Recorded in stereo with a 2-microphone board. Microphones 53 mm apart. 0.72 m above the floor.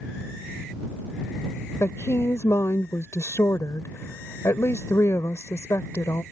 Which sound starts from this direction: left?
A woman speaking, at 1.8 s.